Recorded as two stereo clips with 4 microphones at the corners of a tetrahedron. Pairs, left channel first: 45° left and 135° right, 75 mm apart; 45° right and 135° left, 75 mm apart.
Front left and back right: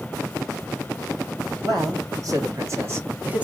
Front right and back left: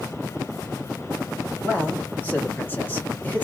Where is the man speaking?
105° right, 1.5 m; by 3.4 s 85° right, 0.7 m.